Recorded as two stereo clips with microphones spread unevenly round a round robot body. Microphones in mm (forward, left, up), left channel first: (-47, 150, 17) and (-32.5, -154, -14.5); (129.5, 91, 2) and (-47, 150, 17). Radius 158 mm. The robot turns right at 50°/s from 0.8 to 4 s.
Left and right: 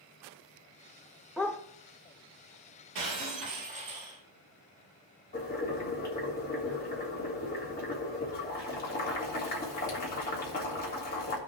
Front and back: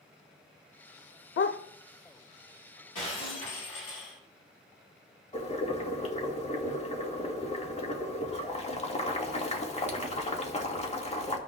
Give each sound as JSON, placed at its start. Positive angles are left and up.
{"t": 1.4, "sound": "a dog barking", "azimuth_deg": 0, "distance_m": 0.5}
{"t": 3.0, "sound": "breaking glass", "azimuth_deg": -60, "distance_m": 3.5}
{"t": 5.3, "sound": "boiling", "azimuth_deg": 30, "distance_m": 1.6}